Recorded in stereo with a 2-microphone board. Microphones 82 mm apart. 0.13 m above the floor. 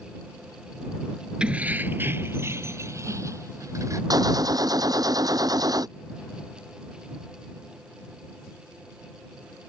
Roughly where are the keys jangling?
Centre.